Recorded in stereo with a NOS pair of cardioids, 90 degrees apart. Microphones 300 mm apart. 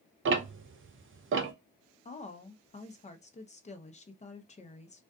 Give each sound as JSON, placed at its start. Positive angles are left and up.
{"t": 0.2, "sound": "ticking", "azimuth_deg": -45, "distance_m": 0.7}
{"t": 2.0, "sound": "a woman speaking", "azimuth_deg": 25, "distance_m": 0.7}